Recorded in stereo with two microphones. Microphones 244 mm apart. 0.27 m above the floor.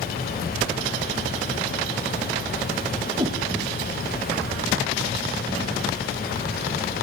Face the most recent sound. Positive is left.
turn(degrees=-15)  # may be behind; listen again after turning